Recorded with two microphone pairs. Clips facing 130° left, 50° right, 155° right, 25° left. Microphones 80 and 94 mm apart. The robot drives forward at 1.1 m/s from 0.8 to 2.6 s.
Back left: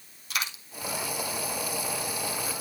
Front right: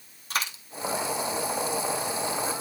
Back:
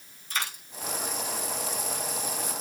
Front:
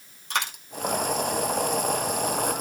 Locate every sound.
0.3 s a dropped coin: 5° left, 3 m